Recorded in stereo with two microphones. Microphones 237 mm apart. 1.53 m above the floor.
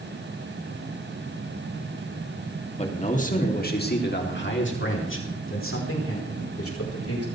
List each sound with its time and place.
2.8 s a man speaking: 25° left (ahead or behind), 2.5 m; by 7.2 s 70° left (ahead or behind), 5 m